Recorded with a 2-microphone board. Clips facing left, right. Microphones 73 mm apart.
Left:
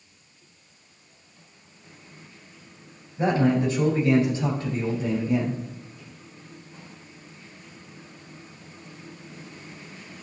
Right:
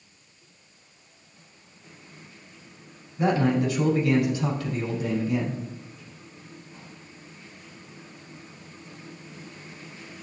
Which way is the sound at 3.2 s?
30° left (ahead or behind).